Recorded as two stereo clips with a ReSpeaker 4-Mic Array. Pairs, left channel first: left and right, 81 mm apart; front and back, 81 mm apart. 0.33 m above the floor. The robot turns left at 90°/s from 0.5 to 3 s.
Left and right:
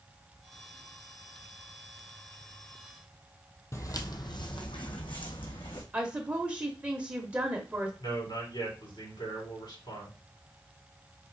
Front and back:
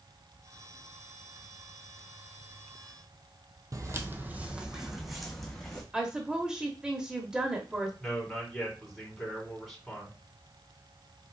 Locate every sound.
3.7 s footsteps: 140° left, 0.7 m; by 5.8 s 85° left, 1.7 m
5.9 s a woman speaking: 120° right, 0.8 m
8.0 s a man speaking: 90° left, 3 m